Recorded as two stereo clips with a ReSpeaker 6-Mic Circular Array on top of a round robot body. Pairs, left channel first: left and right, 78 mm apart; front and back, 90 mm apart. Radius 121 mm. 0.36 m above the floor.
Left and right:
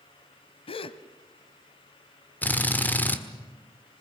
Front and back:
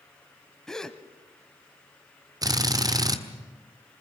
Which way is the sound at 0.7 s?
85° left.